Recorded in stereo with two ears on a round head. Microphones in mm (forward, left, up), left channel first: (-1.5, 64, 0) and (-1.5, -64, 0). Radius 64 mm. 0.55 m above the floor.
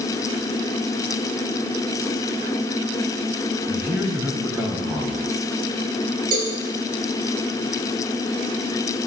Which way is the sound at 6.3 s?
70° right (ahead or behind).